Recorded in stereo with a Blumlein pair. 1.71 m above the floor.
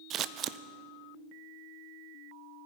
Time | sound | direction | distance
0.1 | scissors | 30° right | 0.6 m